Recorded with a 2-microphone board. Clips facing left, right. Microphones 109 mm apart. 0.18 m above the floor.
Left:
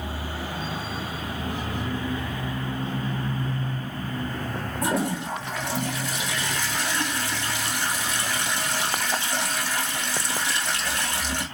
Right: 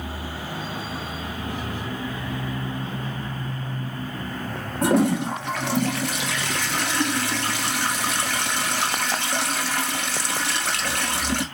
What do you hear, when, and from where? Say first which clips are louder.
4.8 s a toilet flushing: right 7 dB; 65° right (ahead or behind), 1.2 m